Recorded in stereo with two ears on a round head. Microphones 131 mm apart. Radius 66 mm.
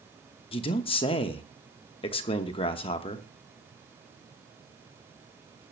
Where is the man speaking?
35° left (ahead or behind), 1.0 m.